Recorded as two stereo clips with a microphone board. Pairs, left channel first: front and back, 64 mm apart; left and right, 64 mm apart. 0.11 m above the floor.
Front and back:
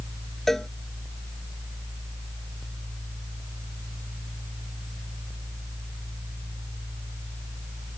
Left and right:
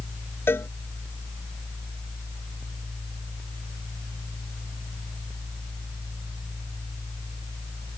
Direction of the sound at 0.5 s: 80° left.